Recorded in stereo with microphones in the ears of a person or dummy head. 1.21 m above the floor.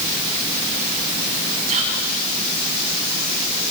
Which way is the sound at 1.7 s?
35° right (ahead or behind).